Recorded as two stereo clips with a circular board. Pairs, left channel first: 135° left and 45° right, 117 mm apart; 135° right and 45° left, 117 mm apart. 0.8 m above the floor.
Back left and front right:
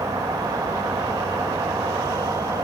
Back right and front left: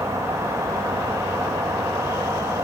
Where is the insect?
5° right, 1.7 m.